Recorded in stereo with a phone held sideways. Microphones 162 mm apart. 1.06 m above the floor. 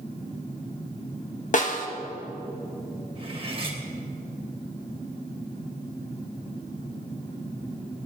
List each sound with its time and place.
1.5 s a snare drum: 55° left (ahead or behind), 1.5 m
3.1 s cutlery clinking: 35° right (ahead or behind), 3 m